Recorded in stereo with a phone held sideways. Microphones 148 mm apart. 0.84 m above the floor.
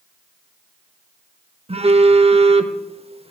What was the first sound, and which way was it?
A phone buzzing, 40° right (ahead or behind).